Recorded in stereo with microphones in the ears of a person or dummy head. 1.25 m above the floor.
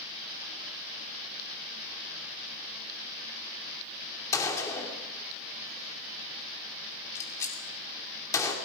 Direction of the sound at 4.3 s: 20° left (ahead or behind).